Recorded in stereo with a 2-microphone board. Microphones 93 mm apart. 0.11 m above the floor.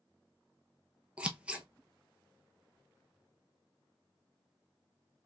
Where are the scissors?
15° right (ahead or behind), 0.7 m.